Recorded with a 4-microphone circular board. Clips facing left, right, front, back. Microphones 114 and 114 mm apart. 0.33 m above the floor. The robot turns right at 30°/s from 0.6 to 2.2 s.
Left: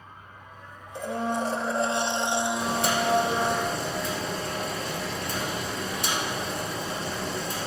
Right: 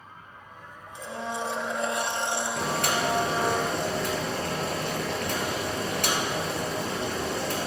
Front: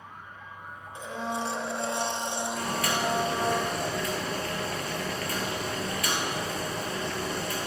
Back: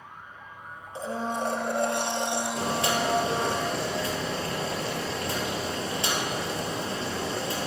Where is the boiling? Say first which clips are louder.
Left 1 dB, back 2 dB; 120° right, 2.5 m.